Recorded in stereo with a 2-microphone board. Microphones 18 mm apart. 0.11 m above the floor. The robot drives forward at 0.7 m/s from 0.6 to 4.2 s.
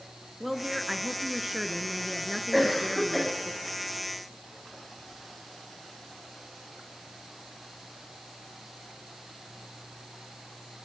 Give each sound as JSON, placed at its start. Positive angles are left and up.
{"t": 0.4, "sound": "a woman speaking", "side_deg": -15, "distance_m": 1.3}
{"t": 2.5, "sound": "a cough", "side_deg": 0, "distance_m": 7.5}